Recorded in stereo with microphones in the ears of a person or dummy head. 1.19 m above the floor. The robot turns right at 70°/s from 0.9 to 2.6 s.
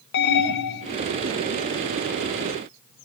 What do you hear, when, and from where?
0.1 s an alarm: 60° left (ahead or behind), 1.2 m